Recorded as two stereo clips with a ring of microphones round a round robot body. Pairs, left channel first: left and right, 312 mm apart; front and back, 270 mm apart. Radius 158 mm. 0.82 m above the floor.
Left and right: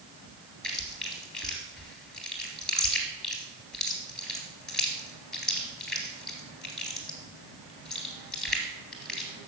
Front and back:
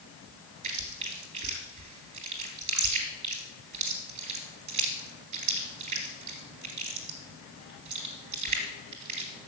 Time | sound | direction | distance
0.6 | chewing | straight behind | 2.5 m